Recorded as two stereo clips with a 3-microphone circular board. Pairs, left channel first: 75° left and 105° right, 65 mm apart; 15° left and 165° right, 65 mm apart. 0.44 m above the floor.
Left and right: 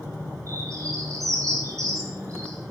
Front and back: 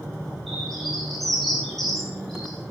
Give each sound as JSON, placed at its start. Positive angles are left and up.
{"t": 0.5, "sound": "a bird", "azimuth_deg": -70, "distance_m": 9.5}